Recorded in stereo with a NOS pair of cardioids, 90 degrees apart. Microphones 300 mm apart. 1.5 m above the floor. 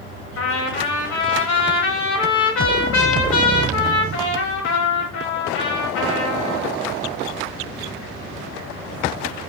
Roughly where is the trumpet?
Left.